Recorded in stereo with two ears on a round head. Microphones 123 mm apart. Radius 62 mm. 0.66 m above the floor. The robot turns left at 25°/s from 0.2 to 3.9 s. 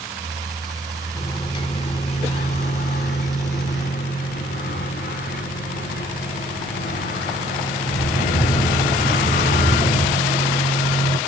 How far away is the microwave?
About 1.9 m.